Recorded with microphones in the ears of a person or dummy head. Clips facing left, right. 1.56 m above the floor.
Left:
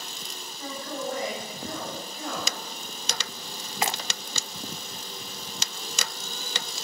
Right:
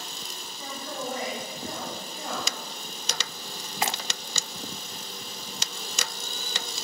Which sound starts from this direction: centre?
A man speaking, at 0.6 s.